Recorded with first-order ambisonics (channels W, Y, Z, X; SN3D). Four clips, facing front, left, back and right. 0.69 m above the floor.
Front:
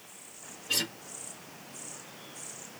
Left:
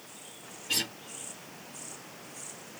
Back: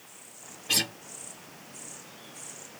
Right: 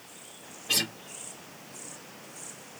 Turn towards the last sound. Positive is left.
turn(degrees=-150)